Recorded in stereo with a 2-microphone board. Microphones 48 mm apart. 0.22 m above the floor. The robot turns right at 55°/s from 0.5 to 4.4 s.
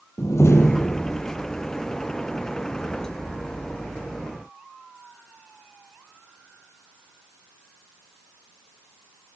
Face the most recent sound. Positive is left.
turn(degrees=-40)